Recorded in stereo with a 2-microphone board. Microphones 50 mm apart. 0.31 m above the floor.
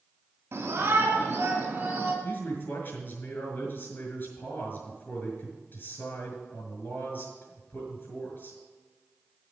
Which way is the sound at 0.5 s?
50° right (ahead or behind).